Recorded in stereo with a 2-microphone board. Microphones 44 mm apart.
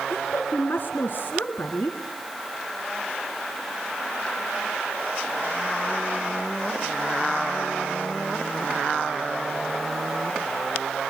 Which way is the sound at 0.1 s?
50° left (ahead or behind).